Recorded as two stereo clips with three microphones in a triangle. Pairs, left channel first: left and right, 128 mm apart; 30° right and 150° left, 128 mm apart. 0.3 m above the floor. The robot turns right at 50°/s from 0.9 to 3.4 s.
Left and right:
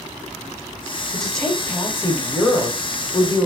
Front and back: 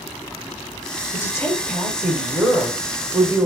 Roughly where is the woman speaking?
Ahead.